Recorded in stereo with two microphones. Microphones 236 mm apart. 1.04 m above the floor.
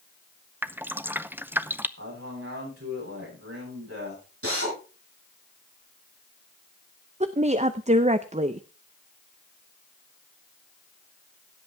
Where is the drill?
70° right (ahead or behind), 6.5 m.